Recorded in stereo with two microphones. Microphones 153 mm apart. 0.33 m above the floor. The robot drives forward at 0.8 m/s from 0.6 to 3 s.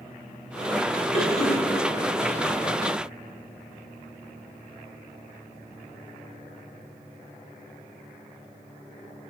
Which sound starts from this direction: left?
A cough, at 1.1 s.